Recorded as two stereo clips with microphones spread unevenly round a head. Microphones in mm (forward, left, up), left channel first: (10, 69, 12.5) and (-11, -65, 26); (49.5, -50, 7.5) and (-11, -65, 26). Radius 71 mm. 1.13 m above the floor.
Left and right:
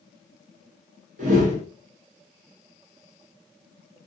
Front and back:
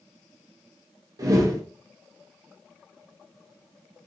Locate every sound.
1.2 s a whoosh: 135° right, 0.8 m